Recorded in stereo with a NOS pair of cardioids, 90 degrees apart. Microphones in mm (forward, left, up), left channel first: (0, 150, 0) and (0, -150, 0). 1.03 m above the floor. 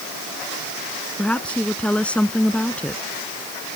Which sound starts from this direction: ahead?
A woman speaking, at 1.2 s.